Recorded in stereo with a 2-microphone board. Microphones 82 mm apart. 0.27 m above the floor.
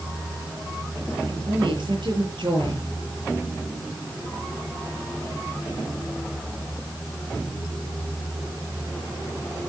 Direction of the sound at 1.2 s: 80° right.